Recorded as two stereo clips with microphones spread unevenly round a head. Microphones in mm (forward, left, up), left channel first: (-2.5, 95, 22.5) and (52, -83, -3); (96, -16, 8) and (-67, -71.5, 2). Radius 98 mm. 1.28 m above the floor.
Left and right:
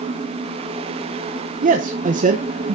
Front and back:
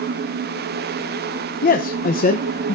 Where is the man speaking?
25° right, 1.0 m.